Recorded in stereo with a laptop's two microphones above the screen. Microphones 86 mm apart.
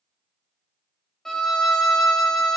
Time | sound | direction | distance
1.2 | a violin | 5° left (ahead or behind) | 0.9 m